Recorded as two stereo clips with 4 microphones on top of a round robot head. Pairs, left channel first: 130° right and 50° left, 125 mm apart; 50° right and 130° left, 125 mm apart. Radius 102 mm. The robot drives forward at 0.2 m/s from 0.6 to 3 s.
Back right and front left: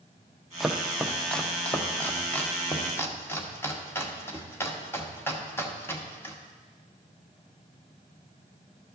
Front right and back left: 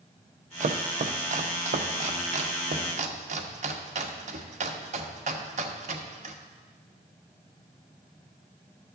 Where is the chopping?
140° left, 0.6 m; by 6.3 s 160° left, 1.0 m.